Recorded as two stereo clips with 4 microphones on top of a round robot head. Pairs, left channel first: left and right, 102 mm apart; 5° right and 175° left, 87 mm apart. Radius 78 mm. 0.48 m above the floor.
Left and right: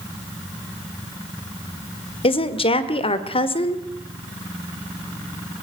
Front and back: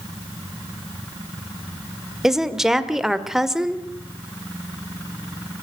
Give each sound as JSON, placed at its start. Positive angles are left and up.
{"t": 2.2, "sound": "a woman speaking", "azimuth_deg": 90, "distance_m": 1.7}